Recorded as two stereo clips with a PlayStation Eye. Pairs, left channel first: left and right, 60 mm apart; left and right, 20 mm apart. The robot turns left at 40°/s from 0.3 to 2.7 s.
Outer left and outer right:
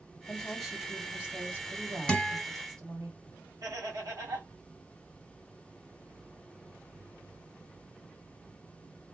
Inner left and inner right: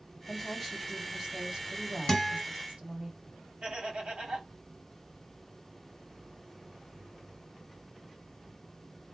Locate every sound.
0.3 s a woman speaking: 15° left, 3 m; by 3.1 s 80° right, 3 m
2.1 s a guitar: 15° left (ahead or behind), 1.6 m; by 2.4 s 5° left (ahead or behind), 1.6 m
3.6 s laughter: 85° right, 3 m